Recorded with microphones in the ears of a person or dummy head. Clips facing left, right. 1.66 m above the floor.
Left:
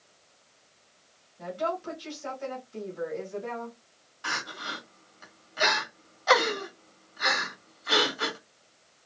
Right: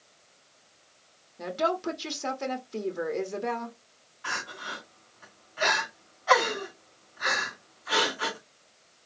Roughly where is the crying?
Left.